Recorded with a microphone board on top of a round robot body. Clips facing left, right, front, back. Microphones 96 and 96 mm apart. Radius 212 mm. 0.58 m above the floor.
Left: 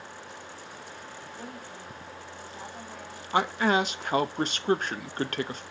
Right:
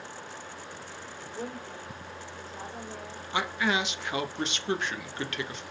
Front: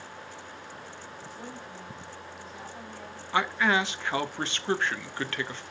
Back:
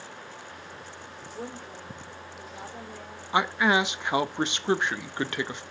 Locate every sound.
1.4 s a woman speaking: 145° right, 3 m
3.3 s a man speaking: 110° left, 0.8 m